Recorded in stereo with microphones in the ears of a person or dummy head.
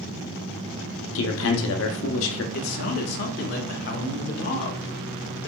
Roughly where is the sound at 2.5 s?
Left.